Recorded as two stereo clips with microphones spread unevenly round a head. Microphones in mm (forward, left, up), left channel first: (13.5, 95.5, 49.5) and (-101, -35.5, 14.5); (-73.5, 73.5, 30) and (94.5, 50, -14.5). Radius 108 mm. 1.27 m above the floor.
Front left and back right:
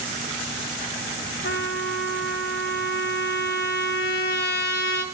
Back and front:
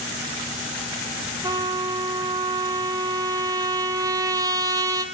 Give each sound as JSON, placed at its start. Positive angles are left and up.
{"t": 1.4, "sound": "a trumpet", "azimuth_deg": 70, "distance_m": 1.4}